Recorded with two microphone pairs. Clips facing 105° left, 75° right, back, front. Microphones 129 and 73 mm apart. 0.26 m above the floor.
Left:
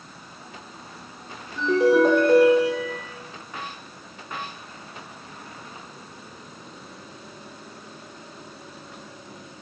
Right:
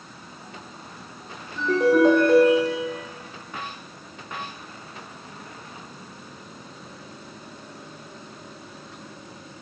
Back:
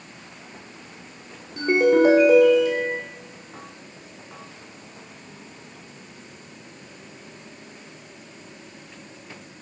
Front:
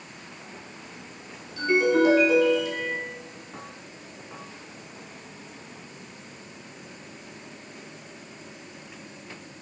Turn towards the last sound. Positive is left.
turn(degrees=-165)